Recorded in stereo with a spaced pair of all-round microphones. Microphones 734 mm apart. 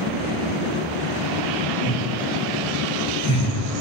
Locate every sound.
1.8 s laughter: 10° left (ahead or behind), 2.5 m; by 3.5 s 25° left (ahead or behind), 4.5 m